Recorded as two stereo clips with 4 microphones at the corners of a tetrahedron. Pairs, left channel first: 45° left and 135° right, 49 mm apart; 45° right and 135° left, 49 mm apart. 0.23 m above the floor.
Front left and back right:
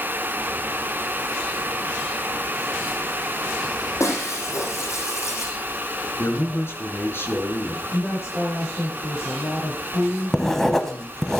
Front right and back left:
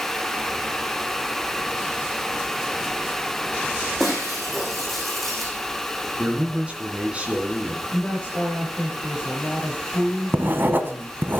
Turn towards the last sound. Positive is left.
turn(degrees=125)